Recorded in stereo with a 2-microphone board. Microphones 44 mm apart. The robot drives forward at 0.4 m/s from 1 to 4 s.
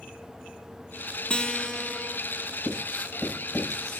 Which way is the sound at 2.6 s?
5° left (ahead or behind).